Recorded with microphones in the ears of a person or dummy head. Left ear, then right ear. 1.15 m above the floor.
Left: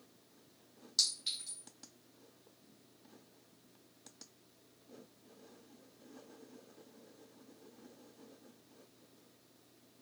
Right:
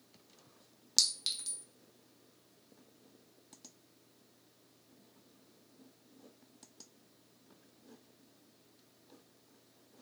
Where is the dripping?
No dripping in this recording.